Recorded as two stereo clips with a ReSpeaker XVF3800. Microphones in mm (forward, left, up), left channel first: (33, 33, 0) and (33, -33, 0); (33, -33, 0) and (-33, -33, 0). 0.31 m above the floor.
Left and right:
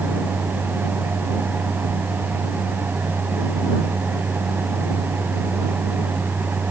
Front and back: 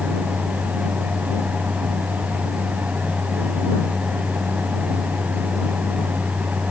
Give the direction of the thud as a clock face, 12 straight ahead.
No thud in this recording.